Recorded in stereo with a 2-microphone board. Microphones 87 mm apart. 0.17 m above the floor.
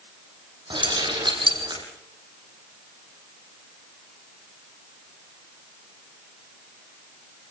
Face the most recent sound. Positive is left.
turn(degrees=-65)  # may be behind; listen again after turning